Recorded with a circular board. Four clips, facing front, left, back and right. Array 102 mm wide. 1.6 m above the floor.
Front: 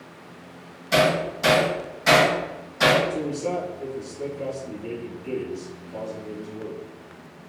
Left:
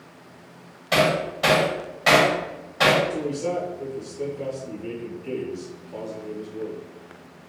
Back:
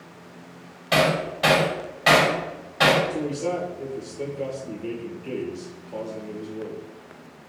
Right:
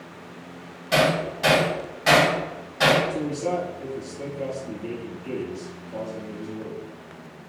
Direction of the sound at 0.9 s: 165° left.